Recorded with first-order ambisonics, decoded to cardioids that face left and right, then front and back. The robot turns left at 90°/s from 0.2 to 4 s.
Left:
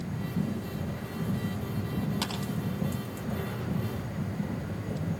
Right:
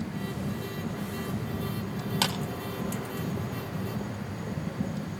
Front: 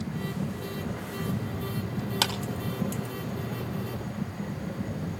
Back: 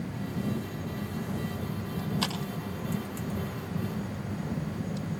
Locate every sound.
2.2 s a clap: 35° right, 3.5 m; by 2.3 s 45° right, 3.5 m